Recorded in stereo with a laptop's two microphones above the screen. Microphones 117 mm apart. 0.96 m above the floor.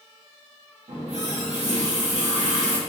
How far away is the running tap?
About 0.7 m.